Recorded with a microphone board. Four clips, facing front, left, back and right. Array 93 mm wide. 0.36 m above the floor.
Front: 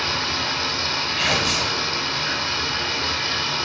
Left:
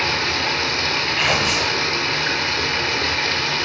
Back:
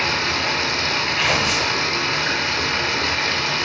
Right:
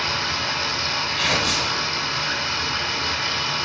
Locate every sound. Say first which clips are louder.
0.0 s running water: left 3 dB, back 3 dB; 130° left, 0.9 m
1.2 s tearing paper: left 3 dB, back 1 dB; 120° left, 1.4 m